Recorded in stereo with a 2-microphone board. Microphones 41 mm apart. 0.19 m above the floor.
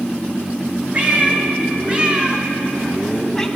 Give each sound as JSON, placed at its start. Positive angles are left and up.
{"t": 0.9, "sound": "a cat meowing", "side_deg": -30, "distance_m": 1.6}